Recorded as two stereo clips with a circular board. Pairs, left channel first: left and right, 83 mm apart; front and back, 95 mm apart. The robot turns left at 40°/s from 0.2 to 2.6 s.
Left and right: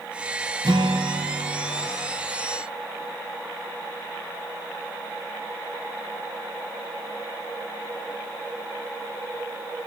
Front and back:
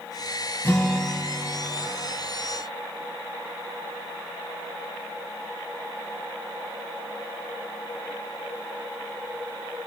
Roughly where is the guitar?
Ahead right.